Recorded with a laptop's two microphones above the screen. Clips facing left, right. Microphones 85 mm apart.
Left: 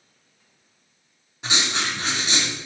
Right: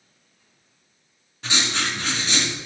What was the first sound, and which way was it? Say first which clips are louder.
Writing: even; 15° left (ahead or behind).